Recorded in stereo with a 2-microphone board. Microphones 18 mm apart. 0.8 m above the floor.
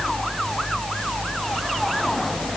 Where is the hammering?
I don't hear hammering.